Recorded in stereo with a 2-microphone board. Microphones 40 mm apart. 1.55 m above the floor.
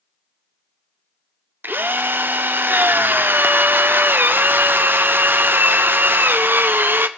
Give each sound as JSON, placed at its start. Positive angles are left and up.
{"t": 1.6, "sound": "a drill", "side_deg": -60, "distance_m": 0.6}